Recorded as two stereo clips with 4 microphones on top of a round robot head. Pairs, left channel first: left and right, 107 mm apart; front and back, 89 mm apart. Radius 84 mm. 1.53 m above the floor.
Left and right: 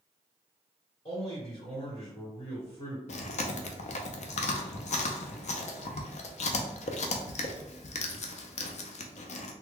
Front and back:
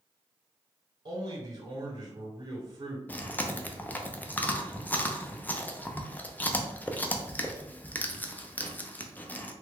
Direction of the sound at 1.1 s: 145° left.